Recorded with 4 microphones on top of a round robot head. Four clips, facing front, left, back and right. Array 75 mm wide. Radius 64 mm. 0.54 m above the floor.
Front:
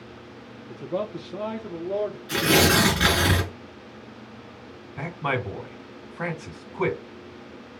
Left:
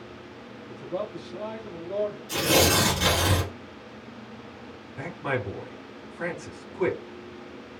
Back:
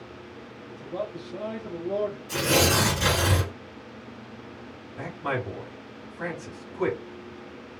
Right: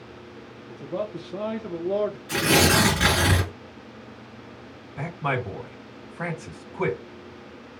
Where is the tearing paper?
35° right, 4 m.